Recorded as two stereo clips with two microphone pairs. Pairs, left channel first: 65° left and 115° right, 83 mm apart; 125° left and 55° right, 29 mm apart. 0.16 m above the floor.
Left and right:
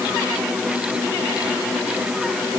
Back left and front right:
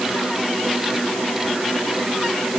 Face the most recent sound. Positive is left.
No sound to turn to.